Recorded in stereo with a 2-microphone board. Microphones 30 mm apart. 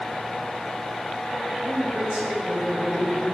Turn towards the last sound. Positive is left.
turn(degrees=-30)  # may be behind; listen again after turning